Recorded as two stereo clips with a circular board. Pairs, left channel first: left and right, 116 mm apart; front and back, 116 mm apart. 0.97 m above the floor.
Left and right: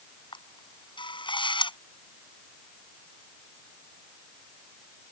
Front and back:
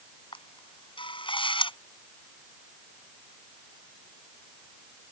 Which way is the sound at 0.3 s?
45° left.